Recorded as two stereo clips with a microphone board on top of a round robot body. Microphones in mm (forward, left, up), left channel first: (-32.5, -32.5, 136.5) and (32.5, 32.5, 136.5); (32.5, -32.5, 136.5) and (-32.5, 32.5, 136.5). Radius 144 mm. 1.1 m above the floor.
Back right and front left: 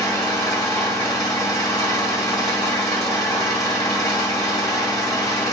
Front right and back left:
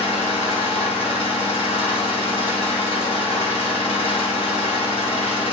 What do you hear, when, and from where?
0.0 s an engine running: 75° right, 1.5 m